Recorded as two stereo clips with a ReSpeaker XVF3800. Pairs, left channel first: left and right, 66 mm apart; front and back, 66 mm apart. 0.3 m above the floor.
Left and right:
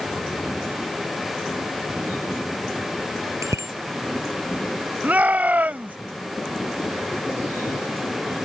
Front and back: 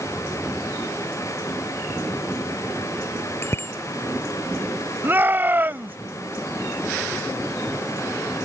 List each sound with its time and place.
3.4 s a bicycle bell: 50° right
5.0 s a shout: 140° right